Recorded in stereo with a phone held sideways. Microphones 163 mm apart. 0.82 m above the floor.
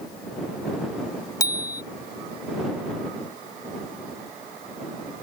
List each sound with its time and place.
1.4 s a bicycle bell: 20° left (ahead or behind)